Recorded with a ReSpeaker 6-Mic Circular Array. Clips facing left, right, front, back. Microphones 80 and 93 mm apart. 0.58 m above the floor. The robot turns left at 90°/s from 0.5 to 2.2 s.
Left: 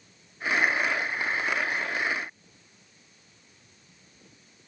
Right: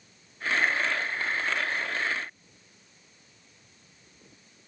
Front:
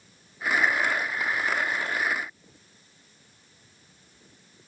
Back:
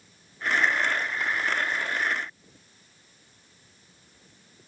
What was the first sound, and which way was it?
Only background noise.